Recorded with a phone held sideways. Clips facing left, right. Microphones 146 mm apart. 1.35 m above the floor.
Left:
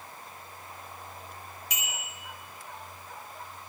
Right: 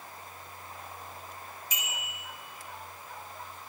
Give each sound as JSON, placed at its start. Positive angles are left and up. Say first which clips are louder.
{"t": 1.7, "sound": "a bicycle bell", "louder": "left 1 dB", "side_deg": 85, "distance_m": 4.0}